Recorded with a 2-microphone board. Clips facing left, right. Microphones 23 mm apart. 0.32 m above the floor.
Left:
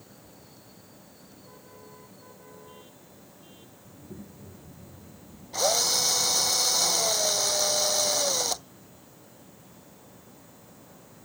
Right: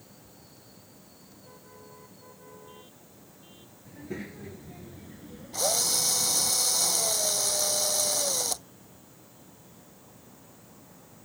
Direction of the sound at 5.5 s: 15° left (ahead or behind).